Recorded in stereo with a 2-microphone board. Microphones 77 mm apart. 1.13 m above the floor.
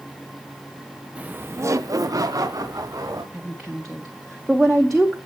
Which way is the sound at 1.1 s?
15° right (ahead or behind).